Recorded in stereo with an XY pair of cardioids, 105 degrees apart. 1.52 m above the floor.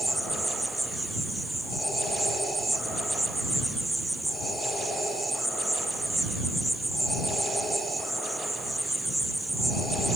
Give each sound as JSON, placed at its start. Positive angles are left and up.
{"t": 0.0, "sound": "an insect", "azimuth_deg": -10}